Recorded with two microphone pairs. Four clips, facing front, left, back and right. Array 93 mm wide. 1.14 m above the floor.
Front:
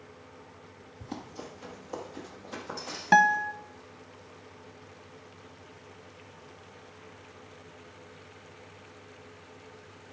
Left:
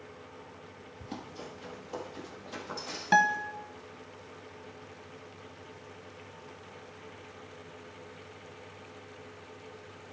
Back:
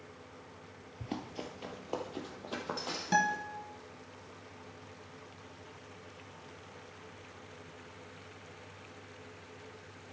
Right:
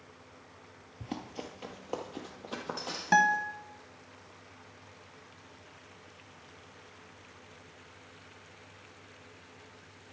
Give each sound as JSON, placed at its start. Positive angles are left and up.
{"t": 1.0, "sound": "running footsteps", "azimuth_deg": -115, "distance_m": 1.5}
{"t": 3.1, "sound": "a guitar", "azimuth_deg": -5, "distance_m": 0.8}